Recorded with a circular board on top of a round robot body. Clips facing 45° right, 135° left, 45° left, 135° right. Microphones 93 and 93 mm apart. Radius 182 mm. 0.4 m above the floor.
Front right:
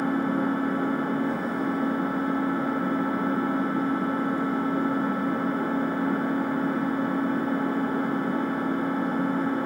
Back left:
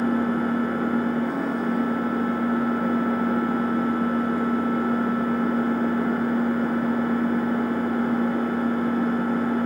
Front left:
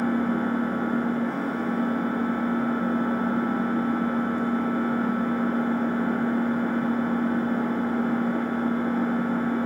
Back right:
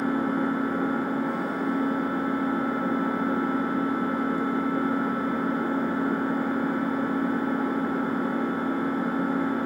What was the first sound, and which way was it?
An engine running, 150° left.